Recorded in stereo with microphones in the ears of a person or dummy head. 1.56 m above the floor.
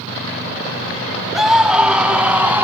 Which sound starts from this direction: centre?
A scream, at 1.4 s.